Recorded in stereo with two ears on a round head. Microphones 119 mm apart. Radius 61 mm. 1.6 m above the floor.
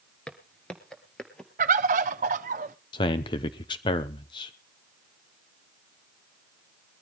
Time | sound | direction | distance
0.3 | footsteps | 5° left (ahead or behind) | 1.6 m
1.6 | a bird | 60° right (ahead or behind) | 0.8 m
2.9 | a man speaking | 35° left (ahead or behind) | 0.7 m